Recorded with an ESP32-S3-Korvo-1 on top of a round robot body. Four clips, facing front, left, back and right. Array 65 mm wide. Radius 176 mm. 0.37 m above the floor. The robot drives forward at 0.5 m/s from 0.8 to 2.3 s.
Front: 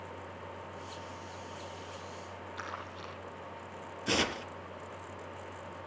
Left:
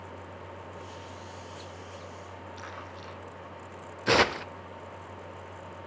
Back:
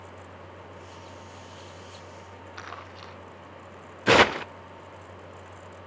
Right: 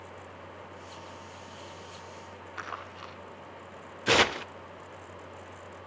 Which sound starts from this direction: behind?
Tearing paper, at 4.1 s.